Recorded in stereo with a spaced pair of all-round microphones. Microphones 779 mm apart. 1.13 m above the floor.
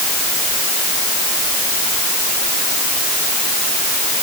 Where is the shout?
I don't hear a shout.